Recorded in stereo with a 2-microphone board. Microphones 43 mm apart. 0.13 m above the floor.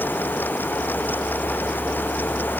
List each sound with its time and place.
Only background noise.